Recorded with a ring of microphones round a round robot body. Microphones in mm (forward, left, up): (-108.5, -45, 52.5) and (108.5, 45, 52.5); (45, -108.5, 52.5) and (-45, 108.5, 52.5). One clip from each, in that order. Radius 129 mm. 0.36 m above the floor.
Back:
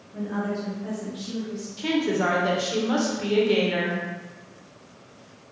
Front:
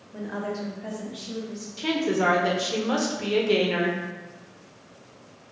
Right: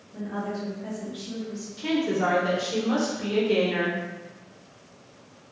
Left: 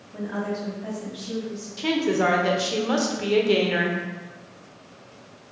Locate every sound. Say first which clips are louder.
0.1 s a woman speaking: back 2 dB, left 3 dB; 65° left, 1.2 m; by 1.7 s straight ahead, 2 m
1.8 s a woman speaking: even, left 3 dB; 85° left, 0.9 m